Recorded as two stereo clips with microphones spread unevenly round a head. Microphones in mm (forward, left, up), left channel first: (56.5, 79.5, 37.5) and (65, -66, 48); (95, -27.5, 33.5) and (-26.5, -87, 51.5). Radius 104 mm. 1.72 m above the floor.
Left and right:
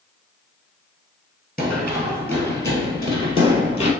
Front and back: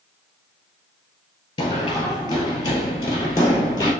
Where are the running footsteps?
10° right, 1.8 m; by 3.9 s 85° left, 1.9 m.